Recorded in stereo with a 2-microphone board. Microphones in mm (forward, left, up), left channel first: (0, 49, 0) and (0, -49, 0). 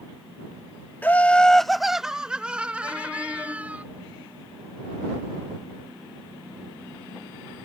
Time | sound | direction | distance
1.0 | laughter | 20° left (ahead or behind) | ?